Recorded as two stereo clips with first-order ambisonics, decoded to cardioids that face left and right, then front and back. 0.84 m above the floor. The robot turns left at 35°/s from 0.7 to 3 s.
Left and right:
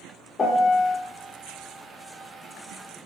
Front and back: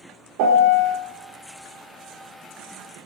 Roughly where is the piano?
Behind.